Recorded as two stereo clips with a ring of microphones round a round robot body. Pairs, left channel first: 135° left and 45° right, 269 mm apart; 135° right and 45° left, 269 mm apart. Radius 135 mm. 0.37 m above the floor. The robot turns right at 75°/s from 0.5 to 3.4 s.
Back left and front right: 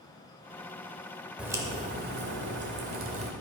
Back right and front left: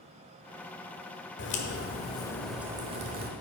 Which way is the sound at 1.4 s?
130° right.